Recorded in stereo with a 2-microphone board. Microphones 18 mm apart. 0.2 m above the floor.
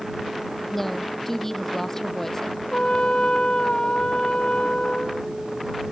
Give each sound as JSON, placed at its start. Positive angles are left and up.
{"t": 0.7, "sound": "a woman speaking", "side_deg": 10}
{"t": 2.7, "sound": "a trumpet", "side_deg": 55}